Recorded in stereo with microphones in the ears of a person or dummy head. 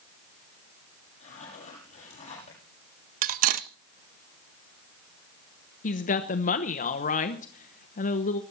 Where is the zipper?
45° left (ahead or behind), 7 m.